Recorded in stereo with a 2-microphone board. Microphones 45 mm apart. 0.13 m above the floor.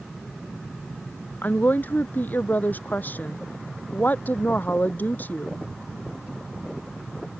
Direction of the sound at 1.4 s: 40° left (ahead or behind).